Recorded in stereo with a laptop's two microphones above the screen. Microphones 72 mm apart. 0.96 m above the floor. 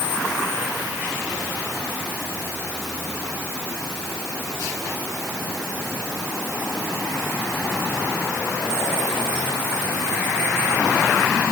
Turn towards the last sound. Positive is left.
No sound to turn to.